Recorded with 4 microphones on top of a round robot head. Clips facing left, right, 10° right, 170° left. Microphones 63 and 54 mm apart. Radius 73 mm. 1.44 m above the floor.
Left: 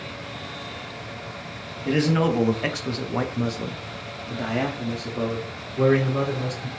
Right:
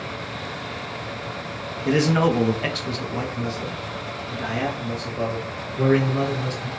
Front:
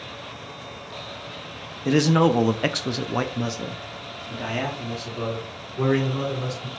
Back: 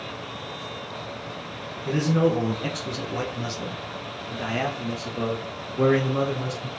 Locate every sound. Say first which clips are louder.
1.9 s a man speaking: right 2 dB, front 4 dB; 15° right, 0.8 m; by 6.7 s 105° left, 2.0 m